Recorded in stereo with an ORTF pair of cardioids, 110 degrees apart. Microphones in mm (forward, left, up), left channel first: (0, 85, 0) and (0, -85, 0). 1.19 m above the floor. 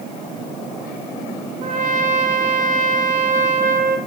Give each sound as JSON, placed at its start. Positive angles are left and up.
{"t": 1.6, "sound": "a trumpet", "azimuth_deg": -65, "distance_m": 0.9}